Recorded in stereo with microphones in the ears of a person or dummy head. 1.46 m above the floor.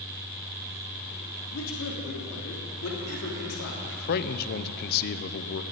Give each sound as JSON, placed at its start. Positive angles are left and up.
{"t": 1.5, "sound": "a man speaking", "side_deg": 85, "distance_m": 3.0}
{"t": 3.8, "sound": "a man speaking", "side_deg": 55, "distance_m": 0.8}